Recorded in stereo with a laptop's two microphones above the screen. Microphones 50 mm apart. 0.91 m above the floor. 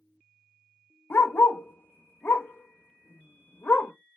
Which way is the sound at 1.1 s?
55° left (ahead or behind).